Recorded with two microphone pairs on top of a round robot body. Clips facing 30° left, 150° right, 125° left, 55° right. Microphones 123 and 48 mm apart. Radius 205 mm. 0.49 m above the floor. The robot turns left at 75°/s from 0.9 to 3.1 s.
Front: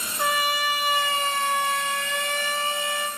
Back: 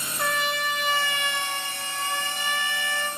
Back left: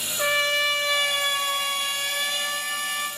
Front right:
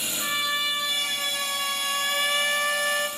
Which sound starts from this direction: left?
A trumpet, at 0.2 s.